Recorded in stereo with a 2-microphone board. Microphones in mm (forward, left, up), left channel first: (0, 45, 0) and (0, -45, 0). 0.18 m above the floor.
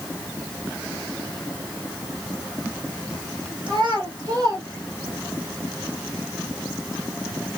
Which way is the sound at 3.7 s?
65° right (ahead or behind).